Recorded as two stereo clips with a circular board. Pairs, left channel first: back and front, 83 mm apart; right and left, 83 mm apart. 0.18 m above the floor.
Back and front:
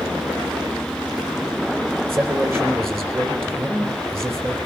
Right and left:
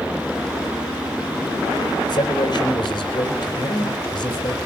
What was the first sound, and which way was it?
A man speaking, 60° right.